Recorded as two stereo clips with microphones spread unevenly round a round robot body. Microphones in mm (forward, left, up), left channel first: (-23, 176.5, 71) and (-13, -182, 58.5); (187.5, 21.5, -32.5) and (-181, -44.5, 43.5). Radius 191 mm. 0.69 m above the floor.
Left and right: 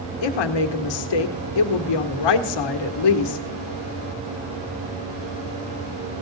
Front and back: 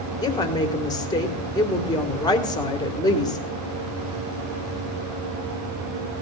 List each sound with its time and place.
0.2 s a woman speaking: 85° left, 2.0 m